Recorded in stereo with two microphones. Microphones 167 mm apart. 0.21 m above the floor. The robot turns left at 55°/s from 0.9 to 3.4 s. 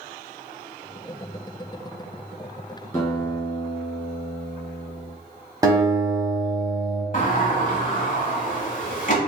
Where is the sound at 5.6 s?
20° right (ahead or behind), 1.0 m.